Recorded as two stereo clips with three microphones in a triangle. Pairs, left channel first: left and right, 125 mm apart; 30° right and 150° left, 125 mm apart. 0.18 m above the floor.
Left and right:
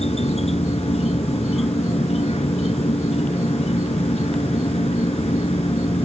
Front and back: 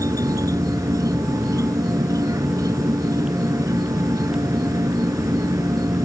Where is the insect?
95° left.